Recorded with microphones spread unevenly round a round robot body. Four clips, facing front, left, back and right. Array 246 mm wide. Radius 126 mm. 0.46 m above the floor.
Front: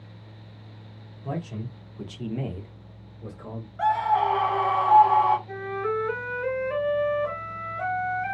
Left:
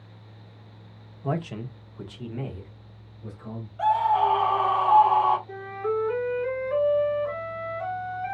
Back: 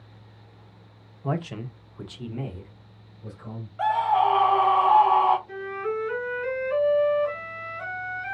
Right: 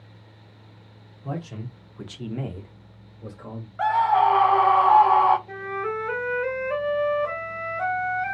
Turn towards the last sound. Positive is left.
turn(degrees=-65)